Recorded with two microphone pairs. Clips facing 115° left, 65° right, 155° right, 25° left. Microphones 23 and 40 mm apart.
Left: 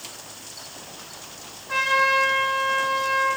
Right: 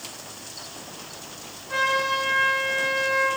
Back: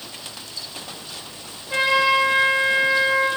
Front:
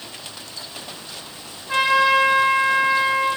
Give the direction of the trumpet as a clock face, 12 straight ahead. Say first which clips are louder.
Left 3 dB, front 2 dB; 10 o'clock.